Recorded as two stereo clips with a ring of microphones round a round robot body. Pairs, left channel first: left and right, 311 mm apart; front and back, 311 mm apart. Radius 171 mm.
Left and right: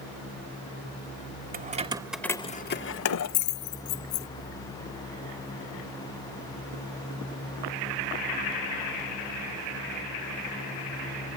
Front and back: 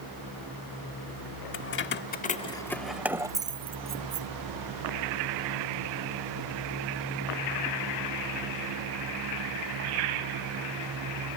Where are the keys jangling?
35° right; by 4.3 s 110° left.